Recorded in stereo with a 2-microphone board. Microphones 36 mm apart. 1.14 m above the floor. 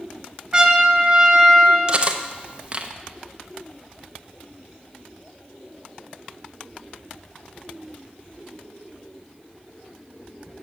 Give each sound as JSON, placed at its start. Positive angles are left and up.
{"t": 0.5, "sound": "a trumpet", "side_deg": -15, "distance_m": 2.0}
{"t": 1.9, "sound": "cutlery clinking", "side_deg": -30, "distance_m": 0.6}